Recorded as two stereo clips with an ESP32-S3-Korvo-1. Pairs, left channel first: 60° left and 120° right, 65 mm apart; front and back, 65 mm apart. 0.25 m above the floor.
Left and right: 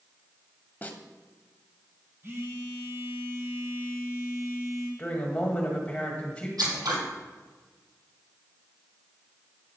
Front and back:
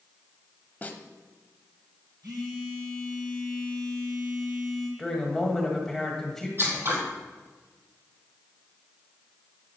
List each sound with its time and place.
0.8 s a snare drum: 30° left, 0.8 m
2.2 s a phone buzzing: 170° right, 2.5 m
5.0 s a woman speaking: 70° left, 1.5 m
6.6 s scissors: 130° right, 2 m